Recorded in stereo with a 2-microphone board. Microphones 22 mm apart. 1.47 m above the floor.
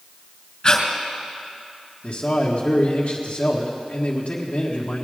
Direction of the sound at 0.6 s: 30° left (ahead or behind).